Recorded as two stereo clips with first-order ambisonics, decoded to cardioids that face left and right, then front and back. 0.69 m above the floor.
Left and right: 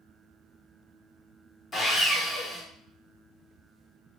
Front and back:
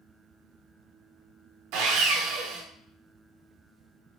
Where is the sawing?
170° left, 0.9 m.